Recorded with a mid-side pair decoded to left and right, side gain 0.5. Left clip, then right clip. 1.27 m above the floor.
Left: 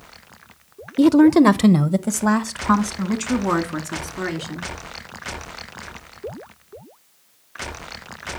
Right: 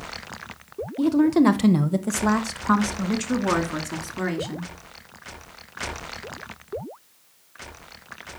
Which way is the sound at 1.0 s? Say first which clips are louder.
Left 6 dB; 60° left.